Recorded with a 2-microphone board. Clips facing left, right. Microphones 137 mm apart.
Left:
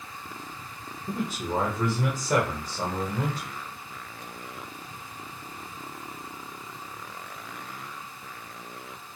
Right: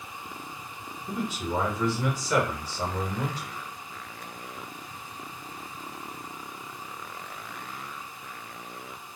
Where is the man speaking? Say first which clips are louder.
Left 1 dB; 30° left (ahead or behind), 0.9 m.